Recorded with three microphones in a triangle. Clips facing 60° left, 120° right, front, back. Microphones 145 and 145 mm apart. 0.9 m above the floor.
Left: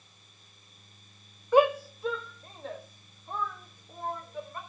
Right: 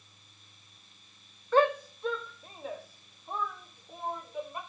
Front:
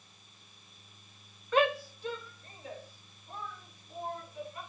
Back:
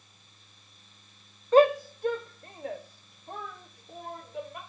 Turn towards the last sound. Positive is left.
turn(degrees=160)